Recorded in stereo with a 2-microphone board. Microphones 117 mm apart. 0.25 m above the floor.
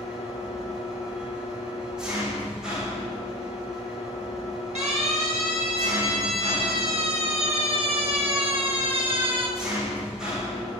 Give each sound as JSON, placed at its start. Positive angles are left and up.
{"t": 0.0, "sound": "an engine running", "side_deg": -5, "distance_m": 9.5}
{"t": 4.8, "sound": "a siren", "side_deg": -70, "distance_m": 6.0}